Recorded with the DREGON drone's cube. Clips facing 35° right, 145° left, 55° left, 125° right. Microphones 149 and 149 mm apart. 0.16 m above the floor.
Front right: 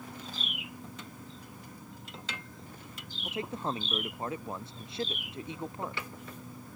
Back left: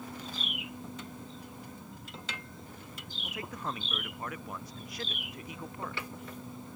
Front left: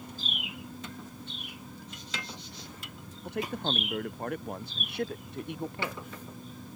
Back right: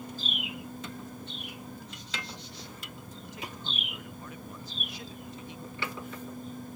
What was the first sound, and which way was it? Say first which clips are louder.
A man speaking: front right 4 dB, front left 11 dB; 30° left.